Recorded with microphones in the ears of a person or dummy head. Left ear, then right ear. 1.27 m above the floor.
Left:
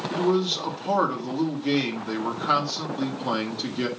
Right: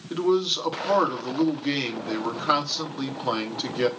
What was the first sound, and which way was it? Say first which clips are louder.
A man speaking: right 2 dB; 15° right (ahead or behind).